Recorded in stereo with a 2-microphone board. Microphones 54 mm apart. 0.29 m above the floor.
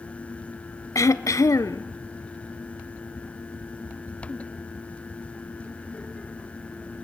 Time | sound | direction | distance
0.9 | throat clearing | 85° left | 0.8 m